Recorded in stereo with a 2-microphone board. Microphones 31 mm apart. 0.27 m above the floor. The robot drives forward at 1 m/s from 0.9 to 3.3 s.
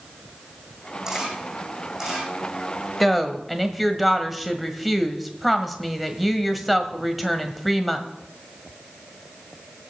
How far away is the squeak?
I don't hear a squeak.